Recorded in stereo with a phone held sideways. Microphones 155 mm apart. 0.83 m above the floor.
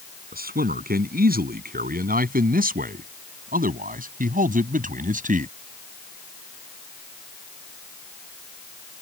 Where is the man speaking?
75° right (ahead or behind); by 5.5 s 60° right (ahead or behind).